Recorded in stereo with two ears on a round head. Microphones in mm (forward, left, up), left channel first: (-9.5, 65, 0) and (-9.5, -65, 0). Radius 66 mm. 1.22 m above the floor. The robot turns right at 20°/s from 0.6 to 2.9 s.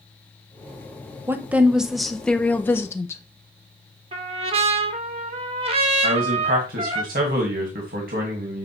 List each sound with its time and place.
1.3 s a woman speaking: 15° right, 0.7 m; by 3.2 s 20° left, 0.7 m
4.1 s a trumpet: 40° right (ahead or behind), 0.9 m
6.0 s a man speaking: 70° right (ahead or behind), 1.7 m